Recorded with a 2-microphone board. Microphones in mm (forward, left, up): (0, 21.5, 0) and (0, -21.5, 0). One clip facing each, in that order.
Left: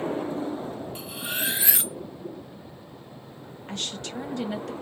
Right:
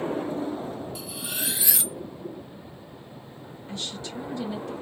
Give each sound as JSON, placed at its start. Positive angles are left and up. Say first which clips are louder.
{"t": 0.9, "sound": "cutlery clinking", "louder": "left 2 dB", "side_deg": 35, "distance_m": 0.7}
{"t": 3.7, "sound": "a woman speaking", "louder": "left 1 dB", "side_deg": 65, "distance_m": 0.9}